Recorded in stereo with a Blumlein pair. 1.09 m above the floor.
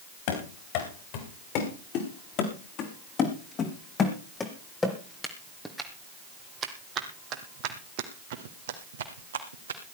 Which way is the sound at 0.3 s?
45° left.